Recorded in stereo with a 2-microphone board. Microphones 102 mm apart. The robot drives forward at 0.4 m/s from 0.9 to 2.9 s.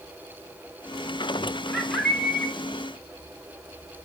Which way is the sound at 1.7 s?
5° left (ahead or behind).